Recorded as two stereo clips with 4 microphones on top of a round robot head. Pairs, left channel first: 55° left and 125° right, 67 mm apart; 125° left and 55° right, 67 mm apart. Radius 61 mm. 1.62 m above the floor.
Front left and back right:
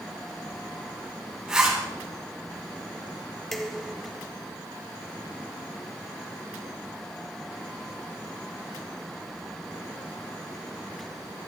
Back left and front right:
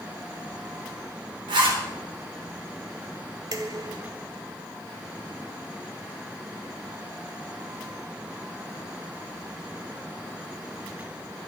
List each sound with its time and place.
1.5 s a zipper: 45° right, 4 m
3.5 s dishes clattering: 25° right, 0.6 m